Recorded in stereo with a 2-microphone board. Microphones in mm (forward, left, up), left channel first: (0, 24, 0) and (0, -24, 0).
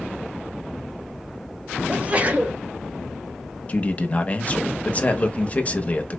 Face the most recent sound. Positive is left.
turn(degrees=30)  # may be behind; listen again after turning